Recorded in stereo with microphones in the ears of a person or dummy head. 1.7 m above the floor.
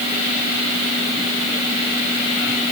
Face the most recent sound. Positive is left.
No sound to turn to.